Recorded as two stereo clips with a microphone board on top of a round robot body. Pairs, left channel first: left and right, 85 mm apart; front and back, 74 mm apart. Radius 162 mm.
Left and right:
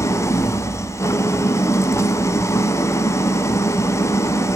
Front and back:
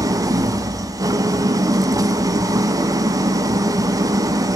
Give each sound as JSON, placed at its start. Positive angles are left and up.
{"t": 0.0, "sound": "an engine running", "azimuth_deg": 145, "distance_m": 1.1}